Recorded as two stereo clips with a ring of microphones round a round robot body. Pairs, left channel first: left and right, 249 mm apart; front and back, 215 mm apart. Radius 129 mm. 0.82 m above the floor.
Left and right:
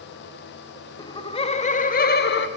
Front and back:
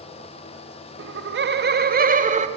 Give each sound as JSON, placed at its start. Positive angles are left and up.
{"t": 1.0, "sound": "laughter", "azimuth_deg": 165, "distance_m": 1.6}